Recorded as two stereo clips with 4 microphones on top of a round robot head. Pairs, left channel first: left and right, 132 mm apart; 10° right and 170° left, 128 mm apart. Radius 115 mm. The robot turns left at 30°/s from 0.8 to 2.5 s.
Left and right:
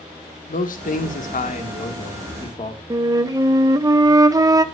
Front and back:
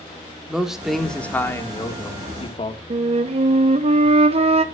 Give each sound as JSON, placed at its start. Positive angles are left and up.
{"t": 0.5, "sound": "a man speaking", "azimuth_deg": 85, "distance_m": 2.0}
{"t": 2.9, "sound": "a flute", "azimuth_deg": -150, "distance_m": 1.1}